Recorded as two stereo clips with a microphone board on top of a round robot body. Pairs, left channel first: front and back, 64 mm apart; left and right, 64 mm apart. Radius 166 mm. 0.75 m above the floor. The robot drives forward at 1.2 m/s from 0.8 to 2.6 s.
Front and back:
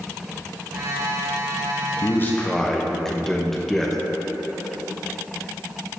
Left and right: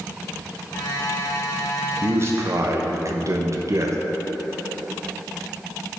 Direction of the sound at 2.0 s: 40° right.